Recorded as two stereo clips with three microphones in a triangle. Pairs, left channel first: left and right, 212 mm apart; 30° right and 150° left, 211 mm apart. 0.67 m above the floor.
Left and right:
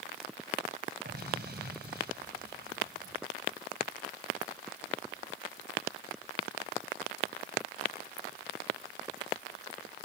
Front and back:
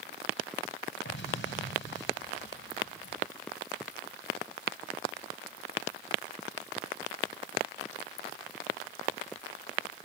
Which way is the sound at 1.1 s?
50° right.